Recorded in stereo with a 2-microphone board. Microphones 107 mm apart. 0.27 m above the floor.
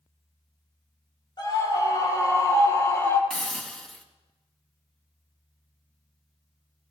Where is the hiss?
5° left (ahead or behind), 2 m.